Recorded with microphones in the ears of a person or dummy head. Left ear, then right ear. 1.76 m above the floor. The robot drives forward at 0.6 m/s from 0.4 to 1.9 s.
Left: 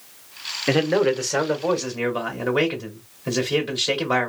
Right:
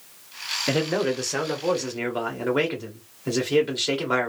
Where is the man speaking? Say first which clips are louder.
Left 6 dB; 15° left (ahead or behind), 0.8 m; by 4.3 s 10° left (ahead or behind), 1.5 m.